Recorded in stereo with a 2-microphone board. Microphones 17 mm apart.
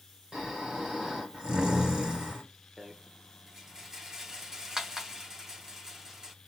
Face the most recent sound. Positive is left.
turn(degrees=-35)  # may be behind; listen again after turning